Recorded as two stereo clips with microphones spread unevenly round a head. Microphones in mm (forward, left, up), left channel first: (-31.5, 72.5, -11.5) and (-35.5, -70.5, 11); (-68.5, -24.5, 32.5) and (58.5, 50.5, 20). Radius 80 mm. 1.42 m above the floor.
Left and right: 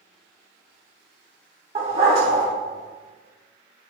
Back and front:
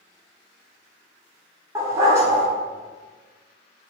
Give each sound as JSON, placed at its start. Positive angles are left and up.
{"t": 1.8, "sound": "a dog barking", "azimuth_deg": -45, "distance_m": 1.8}